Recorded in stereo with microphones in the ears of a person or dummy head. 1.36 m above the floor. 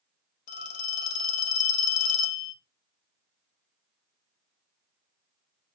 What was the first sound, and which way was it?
A phone ringing, 45° left (ahead or behind).